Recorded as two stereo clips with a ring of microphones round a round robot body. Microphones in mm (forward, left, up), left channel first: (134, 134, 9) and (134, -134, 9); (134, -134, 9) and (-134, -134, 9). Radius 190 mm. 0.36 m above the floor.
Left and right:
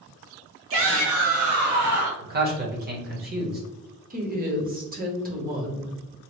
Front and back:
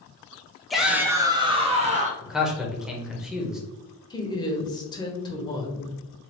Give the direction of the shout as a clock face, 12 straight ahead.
3 o'clock.